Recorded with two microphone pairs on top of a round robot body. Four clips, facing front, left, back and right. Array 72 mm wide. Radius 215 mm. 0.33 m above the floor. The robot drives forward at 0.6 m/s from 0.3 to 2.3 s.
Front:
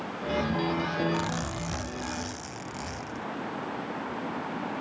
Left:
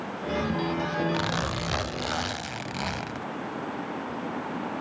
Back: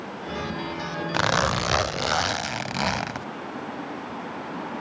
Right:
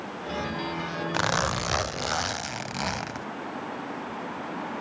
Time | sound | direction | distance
1.1 | a zipper | 150° right | ?